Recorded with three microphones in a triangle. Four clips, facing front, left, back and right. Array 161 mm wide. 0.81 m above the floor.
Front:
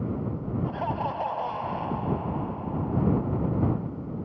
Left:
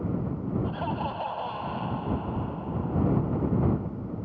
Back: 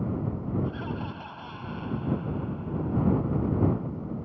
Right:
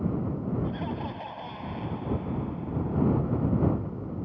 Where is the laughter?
20° left.